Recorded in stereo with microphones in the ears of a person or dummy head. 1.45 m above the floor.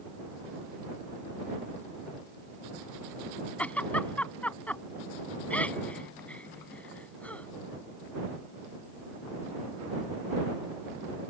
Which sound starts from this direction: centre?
A giggle, at 3.6 s.